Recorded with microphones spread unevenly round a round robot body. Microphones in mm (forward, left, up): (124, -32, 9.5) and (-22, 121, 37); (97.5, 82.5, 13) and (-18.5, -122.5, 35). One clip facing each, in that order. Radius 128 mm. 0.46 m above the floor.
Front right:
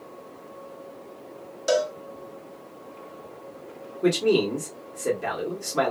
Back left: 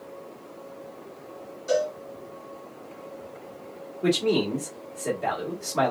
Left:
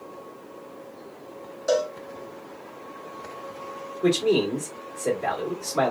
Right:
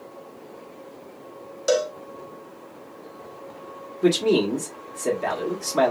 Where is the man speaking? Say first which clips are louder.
Front right 2 dB, right 2 dB; 95° right, 1.5 m.